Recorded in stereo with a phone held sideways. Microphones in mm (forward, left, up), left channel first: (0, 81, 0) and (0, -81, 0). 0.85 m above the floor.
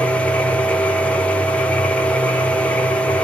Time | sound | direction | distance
0.0 | a machine running | 5° left (ahead or behind) | 0.8 m